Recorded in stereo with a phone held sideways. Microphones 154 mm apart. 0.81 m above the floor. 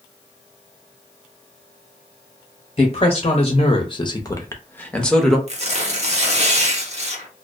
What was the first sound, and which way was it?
A woman speaking, 45° left (ahead or behind).